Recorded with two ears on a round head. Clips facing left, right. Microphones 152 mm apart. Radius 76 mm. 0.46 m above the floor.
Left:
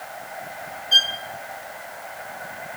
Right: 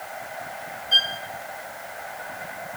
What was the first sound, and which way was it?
A violin, 15° left (ahead or behind).